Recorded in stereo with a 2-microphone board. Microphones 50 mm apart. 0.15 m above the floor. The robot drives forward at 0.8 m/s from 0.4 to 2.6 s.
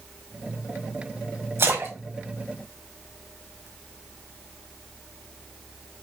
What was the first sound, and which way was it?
A splash, 60° right (ahead or behind).